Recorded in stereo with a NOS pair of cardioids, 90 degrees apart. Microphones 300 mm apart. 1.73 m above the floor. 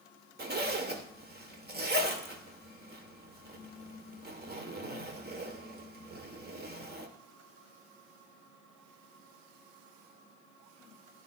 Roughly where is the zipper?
Ahead right.